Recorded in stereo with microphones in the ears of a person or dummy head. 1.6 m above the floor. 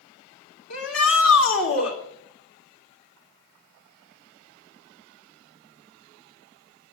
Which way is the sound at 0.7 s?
80° left.